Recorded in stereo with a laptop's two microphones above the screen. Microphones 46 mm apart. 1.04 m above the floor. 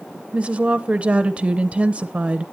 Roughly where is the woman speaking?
Right.